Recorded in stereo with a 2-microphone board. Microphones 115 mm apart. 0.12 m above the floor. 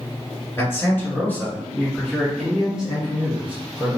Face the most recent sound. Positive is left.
turn(degrees=-20)  # may be behind; listen again after turning